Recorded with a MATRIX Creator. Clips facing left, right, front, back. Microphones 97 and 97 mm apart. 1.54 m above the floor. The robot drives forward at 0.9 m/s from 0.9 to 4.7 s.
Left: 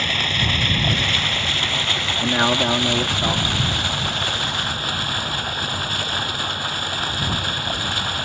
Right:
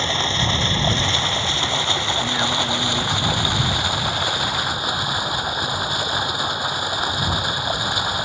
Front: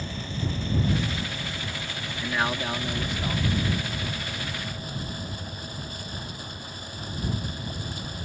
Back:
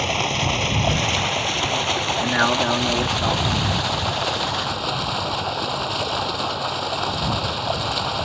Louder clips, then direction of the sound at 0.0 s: Right 2 dB, back 10 dB; 155° right.